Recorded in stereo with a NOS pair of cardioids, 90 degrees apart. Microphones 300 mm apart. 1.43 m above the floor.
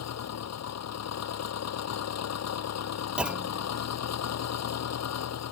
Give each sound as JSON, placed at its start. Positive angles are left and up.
{"t": 0.0, "sound": "an engine running", "azimuth_deg": 60}
{"t": 3.2, "sound": "a clunk", "azimuth_deg": -5}